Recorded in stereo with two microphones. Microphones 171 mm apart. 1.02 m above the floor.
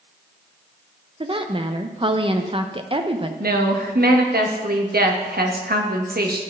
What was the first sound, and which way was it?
A woman speaking, 30° right (ahead or behind).